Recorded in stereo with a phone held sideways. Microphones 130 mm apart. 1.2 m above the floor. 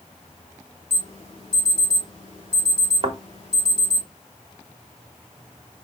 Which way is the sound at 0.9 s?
45° left (ahead or behind).